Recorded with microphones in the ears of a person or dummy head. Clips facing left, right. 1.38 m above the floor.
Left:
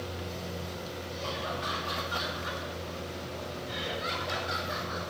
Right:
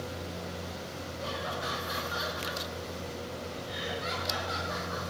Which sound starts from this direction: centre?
Laughter, at 1.2 s.